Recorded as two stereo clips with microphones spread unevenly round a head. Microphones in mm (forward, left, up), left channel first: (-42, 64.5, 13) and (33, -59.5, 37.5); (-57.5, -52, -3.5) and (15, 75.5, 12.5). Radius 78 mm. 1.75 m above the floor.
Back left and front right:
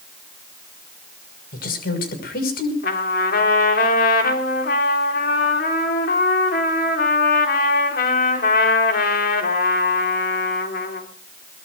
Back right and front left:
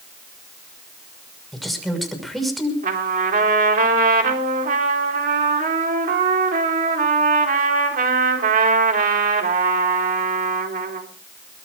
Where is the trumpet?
90° left, 4 m.